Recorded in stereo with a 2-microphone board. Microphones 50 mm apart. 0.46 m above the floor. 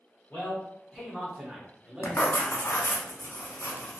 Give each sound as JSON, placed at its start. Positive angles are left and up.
{"t": 0.3, "sound": "a man speaking", "side_deg": 30, "distance_m": 1.1}
{"t": 2.0, "sound": "writing", "side_deg": 55, "distance_m": 0.7}